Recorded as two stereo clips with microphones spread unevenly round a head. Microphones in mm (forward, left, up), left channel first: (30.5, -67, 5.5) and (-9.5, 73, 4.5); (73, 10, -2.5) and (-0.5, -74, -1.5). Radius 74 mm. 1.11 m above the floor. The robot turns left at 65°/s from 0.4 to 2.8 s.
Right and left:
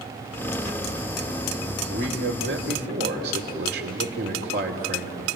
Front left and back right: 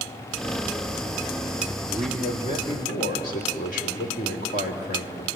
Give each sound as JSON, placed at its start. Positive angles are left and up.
{"t": 1.9, "sound": "a man speaking", "azimuth_deg": 145, "distance_m": 2.5}